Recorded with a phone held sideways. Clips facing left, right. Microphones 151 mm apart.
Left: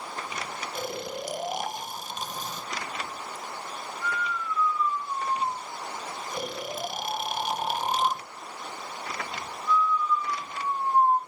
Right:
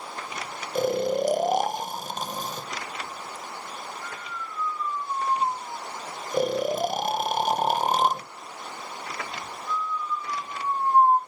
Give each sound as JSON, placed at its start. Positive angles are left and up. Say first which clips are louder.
{"t": 0.8, "sound": "snoring", "louder": "right 12 dB", "side_deg": -45, "distance_m": 0.5}